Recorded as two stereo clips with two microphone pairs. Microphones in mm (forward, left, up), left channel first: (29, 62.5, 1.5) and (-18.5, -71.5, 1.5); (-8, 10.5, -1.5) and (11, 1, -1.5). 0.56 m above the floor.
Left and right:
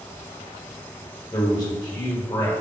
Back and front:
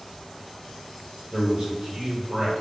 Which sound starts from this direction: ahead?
A man speaking, at 1.3 s.